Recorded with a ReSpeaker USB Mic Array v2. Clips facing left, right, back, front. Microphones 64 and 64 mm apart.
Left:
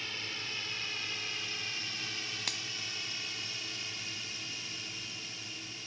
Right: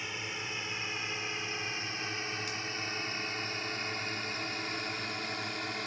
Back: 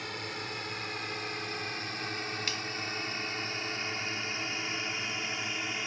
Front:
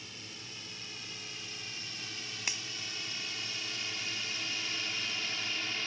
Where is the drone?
160° right; by 5.9 s 110° right.